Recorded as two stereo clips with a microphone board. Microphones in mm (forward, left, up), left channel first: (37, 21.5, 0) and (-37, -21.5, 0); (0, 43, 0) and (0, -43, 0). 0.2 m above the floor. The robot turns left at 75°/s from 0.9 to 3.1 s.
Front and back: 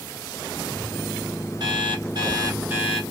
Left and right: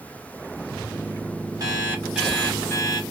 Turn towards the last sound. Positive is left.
turn(degrees=120)